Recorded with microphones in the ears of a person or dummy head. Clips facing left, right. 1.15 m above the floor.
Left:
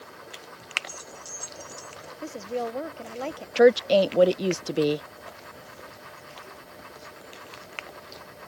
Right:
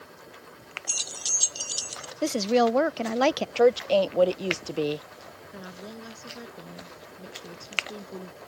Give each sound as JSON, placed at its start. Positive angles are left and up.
{"t": 0.9, "sound": "keys jangling", "side_deg": -85}
{"t": 2.2, "sound": "a woman speaking", "side_deg": -80}
{"t": 3.5, "sound": "a woman speaking", "side_deg": 20}
{"t": 5.5, "sound": "a woman speaking", "side_deg": -75}